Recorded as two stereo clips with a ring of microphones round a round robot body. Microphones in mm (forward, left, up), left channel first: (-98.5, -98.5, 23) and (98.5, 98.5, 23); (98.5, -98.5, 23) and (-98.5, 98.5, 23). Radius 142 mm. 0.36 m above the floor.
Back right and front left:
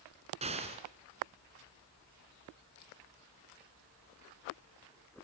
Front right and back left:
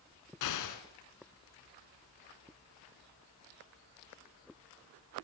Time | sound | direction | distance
0.4 | an explosion | 25° right | 2.5 m